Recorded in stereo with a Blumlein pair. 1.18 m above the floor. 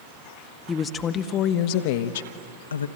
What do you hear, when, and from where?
0.7 s a woman speaking: 15° left, 1.2 m; by 2.9 s 75° left, 1.2 m